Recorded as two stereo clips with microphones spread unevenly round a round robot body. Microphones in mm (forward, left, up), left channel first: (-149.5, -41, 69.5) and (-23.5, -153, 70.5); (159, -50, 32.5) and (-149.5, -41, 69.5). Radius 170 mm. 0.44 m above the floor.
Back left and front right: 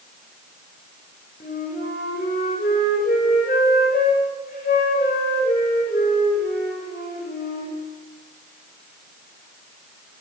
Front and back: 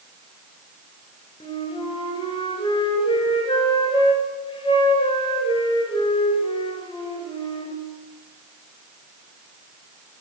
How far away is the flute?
About 1.3 m.